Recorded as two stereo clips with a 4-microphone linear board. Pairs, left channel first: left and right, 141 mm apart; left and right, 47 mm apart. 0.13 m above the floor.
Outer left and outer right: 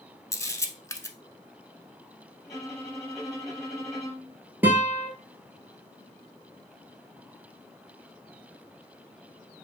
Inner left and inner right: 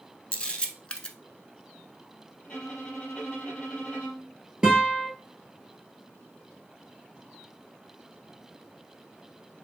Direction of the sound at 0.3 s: 20° left (ahead or behind).